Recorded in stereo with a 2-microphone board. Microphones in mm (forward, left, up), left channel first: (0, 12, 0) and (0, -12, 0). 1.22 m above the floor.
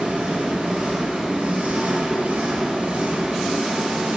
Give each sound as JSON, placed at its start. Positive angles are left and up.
{"t": 0.0, "sound": "an engine running", "side_deg": -75, "distance_m": 4.5}